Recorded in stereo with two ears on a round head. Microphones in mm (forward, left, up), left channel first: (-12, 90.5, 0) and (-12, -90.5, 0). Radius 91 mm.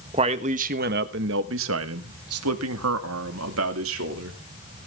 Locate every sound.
0.1 s a man speaking: 25° right (ahead or behind), 1.3 m; by 4.4 s 75° right (ahead or behind), 2.5 m